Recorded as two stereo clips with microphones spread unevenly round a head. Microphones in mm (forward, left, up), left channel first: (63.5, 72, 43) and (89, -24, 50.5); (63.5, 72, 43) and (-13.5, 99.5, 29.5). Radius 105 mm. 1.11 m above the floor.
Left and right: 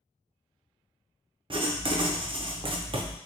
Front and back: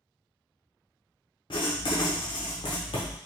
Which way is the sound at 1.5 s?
45° right.